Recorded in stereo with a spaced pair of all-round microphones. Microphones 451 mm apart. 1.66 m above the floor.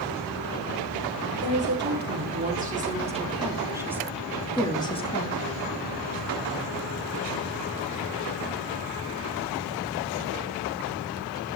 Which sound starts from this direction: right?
A woman speaking, at 1.4 s.